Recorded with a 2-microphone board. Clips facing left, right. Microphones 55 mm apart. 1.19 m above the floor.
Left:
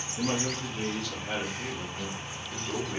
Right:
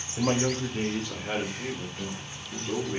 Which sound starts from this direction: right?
A man speaking, at 0.2 s.